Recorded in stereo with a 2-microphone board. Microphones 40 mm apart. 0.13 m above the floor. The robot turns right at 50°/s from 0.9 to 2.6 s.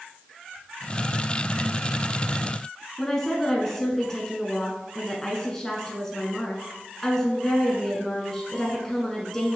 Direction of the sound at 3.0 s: 10° left (ahead or behind).